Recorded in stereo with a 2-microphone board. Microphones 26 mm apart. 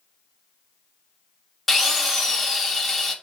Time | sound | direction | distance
1.7 | a drill | 5° left (ahead or behind) | 0.7 m